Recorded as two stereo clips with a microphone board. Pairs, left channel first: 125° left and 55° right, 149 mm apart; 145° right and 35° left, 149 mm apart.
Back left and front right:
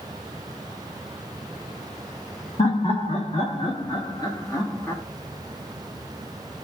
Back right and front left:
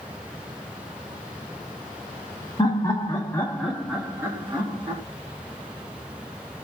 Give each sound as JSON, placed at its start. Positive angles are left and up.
{"t": 2.6, "sound": "laughter", "azimuth_deg": 160, "distance_m": 1.4}